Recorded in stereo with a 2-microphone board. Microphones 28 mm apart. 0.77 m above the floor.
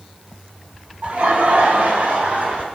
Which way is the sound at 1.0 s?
55° right (ahead or behind).